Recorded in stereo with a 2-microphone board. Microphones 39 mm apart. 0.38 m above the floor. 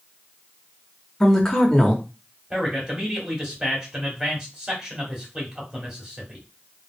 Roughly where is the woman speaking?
Centre.